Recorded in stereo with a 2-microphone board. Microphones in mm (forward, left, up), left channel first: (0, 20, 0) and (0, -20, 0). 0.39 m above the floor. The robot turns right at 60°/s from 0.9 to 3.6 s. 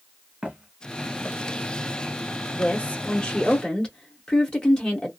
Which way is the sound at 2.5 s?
60° left.